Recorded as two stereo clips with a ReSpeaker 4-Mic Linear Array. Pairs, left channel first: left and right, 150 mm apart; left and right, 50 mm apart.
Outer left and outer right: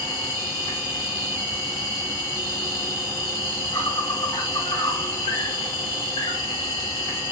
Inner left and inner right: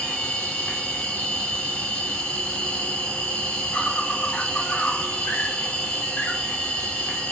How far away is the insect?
About 3 m.